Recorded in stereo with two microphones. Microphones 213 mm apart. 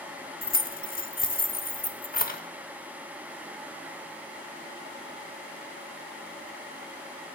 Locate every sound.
0.4 s keys jangling: 45° left (ahead or behind), 0.7 m